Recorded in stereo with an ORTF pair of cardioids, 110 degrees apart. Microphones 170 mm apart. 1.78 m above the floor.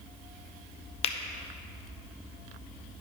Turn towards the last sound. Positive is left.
turn(degrees=35)